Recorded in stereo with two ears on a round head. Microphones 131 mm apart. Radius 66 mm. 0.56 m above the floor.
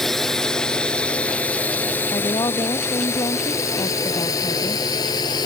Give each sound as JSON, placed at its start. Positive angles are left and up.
{"t": 0.0, "sound": "a drone", "side_deg": 0}
{"t": 2.1, "sound": "a woman speaking", "side_deg": 25}